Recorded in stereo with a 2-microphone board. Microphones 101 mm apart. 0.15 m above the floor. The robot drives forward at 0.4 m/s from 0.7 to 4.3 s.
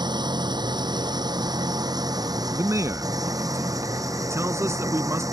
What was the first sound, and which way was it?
An engine running, 45° right (ahead or behind).